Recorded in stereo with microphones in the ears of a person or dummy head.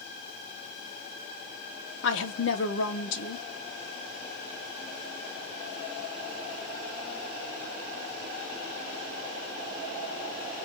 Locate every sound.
2.0 s a woman speaking: 60° left (ahead or behind), 0.7 m